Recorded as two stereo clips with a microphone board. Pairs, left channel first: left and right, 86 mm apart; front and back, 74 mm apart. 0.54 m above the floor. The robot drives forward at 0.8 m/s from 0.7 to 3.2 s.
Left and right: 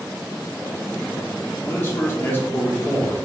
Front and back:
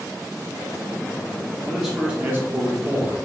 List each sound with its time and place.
1.7 s a man speaking: 75° left, 0.9 m; by 3.3 s 160° left, 1.4 m